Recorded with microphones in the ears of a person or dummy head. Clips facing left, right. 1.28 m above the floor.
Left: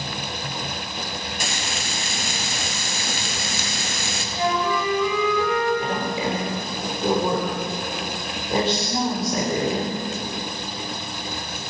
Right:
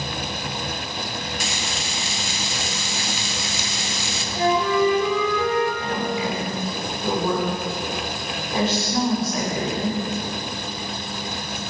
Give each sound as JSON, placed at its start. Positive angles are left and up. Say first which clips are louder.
{"t": 1.4, "sound": "frying", "louder": "even", "side_deg": 45, "distance_m": 0.8}
{"t": 4.3, "sound": "a flute", "louder": "right 4 dB", "side_deg": -30, "distance_m": 6.5}
{"t": 5.8, "sound": "a woman speaking", "louder": "even", "side_deg": 25, "distance_m": 3.5}